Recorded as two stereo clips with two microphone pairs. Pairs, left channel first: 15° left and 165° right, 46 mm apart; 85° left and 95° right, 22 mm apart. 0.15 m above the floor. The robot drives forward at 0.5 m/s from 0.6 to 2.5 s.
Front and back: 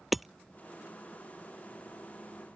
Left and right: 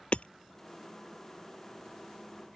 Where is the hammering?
105° left.